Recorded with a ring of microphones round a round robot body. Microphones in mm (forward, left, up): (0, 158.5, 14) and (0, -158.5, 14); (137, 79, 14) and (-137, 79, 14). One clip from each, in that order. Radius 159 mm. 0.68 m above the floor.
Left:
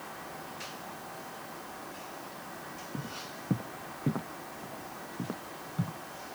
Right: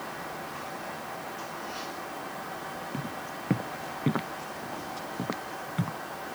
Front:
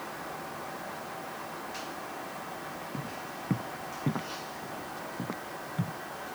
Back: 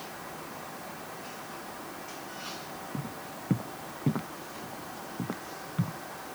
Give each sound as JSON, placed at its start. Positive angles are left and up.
{"t": 2.9, "sound": "footsteps", "azimuth_deg": -75}